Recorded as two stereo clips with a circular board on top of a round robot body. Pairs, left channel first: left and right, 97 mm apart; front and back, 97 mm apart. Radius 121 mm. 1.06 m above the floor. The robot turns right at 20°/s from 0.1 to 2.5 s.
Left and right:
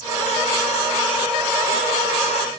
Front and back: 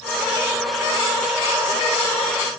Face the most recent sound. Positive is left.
No sound to turn to.